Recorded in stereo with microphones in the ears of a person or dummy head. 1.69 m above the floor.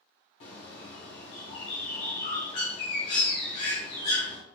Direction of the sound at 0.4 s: 35° left (ahead or behind).